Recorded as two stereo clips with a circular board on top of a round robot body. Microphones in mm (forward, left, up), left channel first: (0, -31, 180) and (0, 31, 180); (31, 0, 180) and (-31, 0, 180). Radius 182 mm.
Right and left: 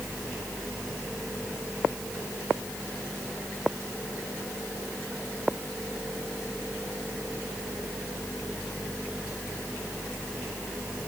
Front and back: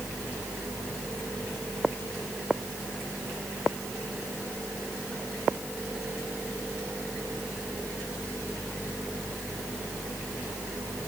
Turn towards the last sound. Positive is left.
No sound to turn to.